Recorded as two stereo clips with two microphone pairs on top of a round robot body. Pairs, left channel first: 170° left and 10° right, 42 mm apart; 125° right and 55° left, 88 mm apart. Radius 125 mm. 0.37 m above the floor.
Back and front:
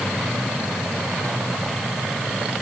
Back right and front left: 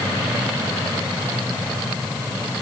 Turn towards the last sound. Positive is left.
No sound to turn to.